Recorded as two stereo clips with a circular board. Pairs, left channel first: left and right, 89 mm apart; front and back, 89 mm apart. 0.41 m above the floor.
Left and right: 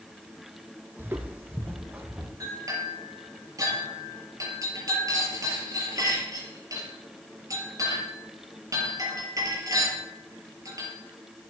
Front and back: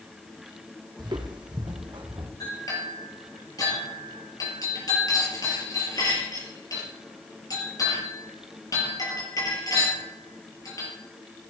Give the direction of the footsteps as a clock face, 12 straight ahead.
5 o'clock.